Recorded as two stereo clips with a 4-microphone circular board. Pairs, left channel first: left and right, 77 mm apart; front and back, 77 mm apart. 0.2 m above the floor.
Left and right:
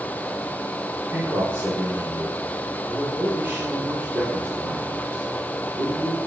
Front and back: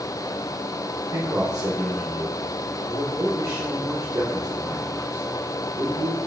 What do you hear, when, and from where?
1.1 s a man speaking: 140° right, 2.5 m